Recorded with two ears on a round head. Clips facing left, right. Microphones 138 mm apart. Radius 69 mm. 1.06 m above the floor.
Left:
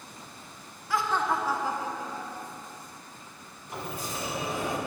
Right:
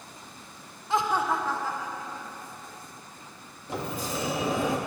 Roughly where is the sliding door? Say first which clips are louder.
Right 4 dB; right.